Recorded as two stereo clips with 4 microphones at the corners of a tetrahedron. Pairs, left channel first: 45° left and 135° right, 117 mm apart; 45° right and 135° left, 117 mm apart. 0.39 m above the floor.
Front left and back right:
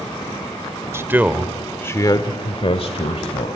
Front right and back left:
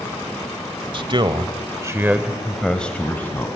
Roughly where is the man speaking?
Behind.